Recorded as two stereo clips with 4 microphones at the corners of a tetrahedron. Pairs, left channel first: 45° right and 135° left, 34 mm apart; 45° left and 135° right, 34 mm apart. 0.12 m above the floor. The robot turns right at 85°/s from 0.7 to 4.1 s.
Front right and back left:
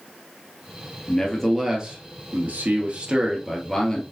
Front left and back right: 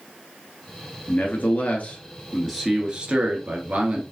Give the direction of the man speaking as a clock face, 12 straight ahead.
12 o'clock.